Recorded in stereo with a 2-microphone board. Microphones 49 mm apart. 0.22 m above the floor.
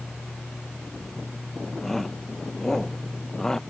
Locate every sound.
1.8 s a shout: 5° left (ahead or behind); by 3.6 s 10° left (ahead or behind)